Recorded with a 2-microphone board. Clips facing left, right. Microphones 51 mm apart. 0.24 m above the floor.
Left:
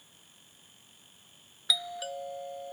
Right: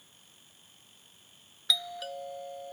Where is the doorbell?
Centre (ahead or behind).